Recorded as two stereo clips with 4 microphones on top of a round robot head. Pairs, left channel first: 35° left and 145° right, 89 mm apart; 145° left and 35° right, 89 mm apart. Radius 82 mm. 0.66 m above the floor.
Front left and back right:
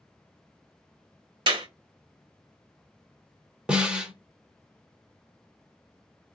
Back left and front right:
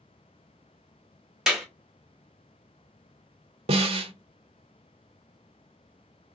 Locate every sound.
1.5 s a clap: 120° right, 1.3 m
3.7 s a snare drum: 60° right, 0.6 m